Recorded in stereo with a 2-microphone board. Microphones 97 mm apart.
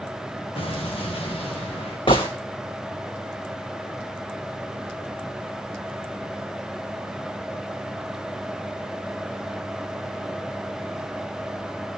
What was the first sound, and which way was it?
An explosion, 65° left (ahead or behind).